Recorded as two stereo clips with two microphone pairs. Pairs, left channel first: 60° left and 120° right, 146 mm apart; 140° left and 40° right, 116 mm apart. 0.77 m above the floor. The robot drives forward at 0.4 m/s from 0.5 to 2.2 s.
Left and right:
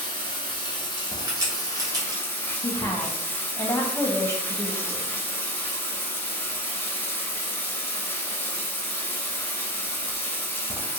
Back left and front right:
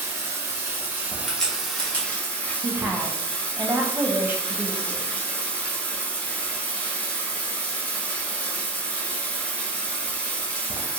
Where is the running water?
20° left, 0.9 m; by 11.0 s 90° left, 0.7 m.